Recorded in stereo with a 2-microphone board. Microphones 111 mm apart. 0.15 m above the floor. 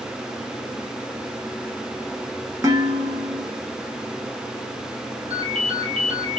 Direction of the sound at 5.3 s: 60° right (ahead or behind).